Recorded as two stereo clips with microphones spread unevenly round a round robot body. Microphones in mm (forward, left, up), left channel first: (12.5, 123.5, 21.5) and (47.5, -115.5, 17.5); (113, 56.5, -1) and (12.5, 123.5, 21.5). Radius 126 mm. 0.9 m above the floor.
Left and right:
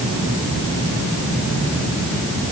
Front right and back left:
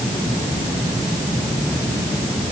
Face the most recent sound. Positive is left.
No sound to turn to.